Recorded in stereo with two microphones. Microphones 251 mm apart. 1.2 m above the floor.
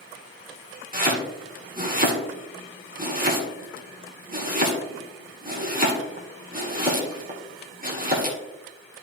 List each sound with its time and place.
0.9 s chopping: 35° right (ahead or behind), 1.7 m